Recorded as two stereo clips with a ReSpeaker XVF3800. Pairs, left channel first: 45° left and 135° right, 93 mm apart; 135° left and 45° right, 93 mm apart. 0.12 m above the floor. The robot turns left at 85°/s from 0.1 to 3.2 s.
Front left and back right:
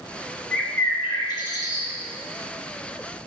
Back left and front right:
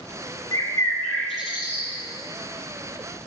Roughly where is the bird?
Behind left.